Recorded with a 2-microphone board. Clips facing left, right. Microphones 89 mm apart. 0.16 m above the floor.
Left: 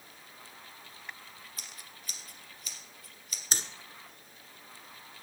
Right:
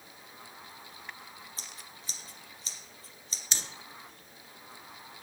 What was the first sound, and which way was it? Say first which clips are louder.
Scissors: right 2 dB; 30° right (ahead or behind).